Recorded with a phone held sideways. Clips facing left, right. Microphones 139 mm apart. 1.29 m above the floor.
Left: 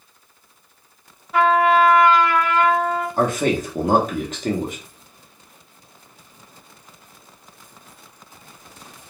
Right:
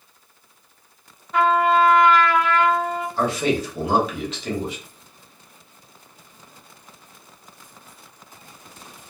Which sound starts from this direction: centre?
A trumpet, at 1.3 s.